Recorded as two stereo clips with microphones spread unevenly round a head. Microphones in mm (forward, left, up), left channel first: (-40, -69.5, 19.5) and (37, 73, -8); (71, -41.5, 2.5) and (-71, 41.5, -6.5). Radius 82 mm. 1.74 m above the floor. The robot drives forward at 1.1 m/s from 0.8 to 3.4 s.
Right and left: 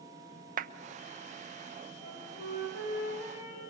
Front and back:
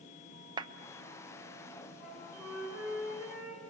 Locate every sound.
0.6 s a clap: 90° left, 0.8 m
2.0 s a flute: 120° right, 6 m; by 3.6 s 130° right, 6.5 m